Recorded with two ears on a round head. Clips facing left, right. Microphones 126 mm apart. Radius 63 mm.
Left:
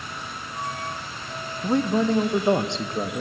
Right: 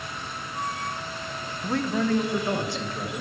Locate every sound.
1.6 s a man speaking: 15° left (ahead or behind), 1.2 m; by 3.2 s 25° left (ahead or behind), 3 m